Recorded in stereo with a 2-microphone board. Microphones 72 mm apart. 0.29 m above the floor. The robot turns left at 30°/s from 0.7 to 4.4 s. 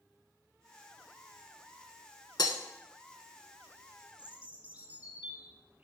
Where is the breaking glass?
75° left (ahead or behind), 0.9 m; by 2.6 s 80° left, 0.9 m.